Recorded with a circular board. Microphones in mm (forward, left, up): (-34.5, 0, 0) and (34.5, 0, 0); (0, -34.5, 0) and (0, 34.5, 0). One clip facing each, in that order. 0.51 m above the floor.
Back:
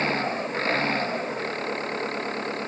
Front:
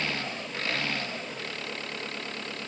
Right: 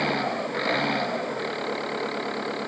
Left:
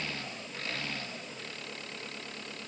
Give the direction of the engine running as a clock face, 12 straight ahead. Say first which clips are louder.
Back 8 dB, right 15 dB; 4 o'clock.